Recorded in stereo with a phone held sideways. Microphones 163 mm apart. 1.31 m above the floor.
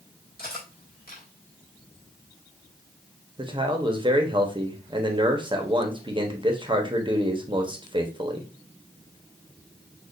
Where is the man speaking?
30° right (ahead or behind), 0.9 m.